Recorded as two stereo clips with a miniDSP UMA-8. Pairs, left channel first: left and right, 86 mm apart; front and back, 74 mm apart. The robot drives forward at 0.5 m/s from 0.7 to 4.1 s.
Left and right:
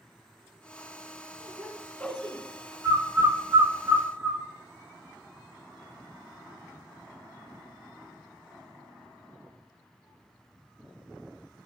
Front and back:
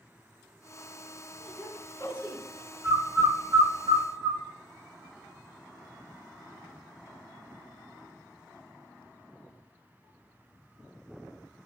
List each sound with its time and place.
1.4 s a woman speaking: 105° right, 2 m; by 2.4 s 120° right, 2.5 m
2.8 s a bird: 135° right, 0.6 m; by 4.4 s 160° right, 1.1 m